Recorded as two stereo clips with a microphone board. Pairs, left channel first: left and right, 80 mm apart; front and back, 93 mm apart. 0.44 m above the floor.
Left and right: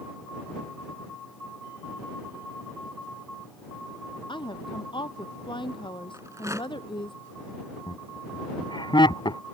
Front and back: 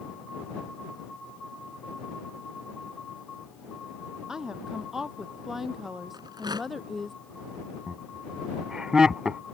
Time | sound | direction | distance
4.3 | a woman speaking | 95° left | ?
6.1 | a rattle | 140° right | ?
7.9 | laughter | 100° left | ?